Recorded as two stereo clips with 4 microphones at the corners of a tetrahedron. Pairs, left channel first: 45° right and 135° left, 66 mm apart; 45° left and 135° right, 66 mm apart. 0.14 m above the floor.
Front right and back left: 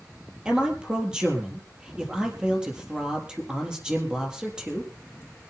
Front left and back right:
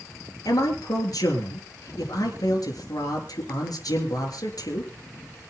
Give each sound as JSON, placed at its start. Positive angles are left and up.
{"t": 0.5, "sound": "a man speaking", "azimuth_deg": 55, "distance_m": 3.5}